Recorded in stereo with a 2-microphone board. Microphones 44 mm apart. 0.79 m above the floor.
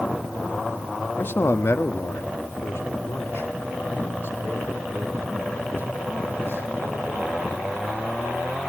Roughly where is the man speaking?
Left.